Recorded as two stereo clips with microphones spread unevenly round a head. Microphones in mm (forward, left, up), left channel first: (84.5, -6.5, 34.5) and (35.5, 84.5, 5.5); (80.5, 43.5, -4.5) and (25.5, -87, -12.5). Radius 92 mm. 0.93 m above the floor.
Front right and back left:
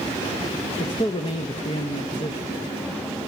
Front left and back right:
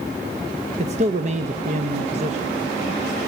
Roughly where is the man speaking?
Right.